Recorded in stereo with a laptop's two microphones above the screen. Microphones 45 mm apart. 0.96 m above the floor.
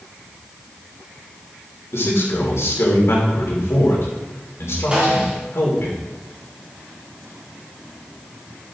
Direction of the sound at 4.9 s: 25° right (ahead or behind).